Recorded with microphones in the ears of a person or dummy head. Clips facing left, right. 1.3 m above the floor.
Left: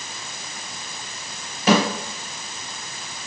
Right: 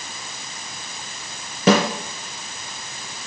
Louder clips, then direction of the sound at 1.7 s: Right 2 dB; 60° right (ahead or behind).